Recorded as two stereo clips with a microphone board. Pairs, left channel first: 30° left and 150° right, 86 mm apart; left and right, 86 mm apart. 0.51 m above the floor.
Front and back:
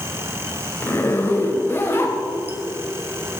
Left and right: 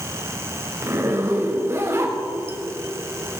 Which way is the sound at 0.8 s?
35° right.